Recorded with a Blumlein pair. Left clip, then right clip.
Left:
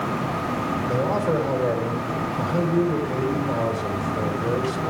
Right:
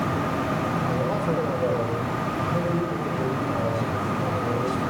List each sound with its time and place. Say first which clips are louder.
0.9 s a man speaking: left 3 dB; 15° left, 3.5 m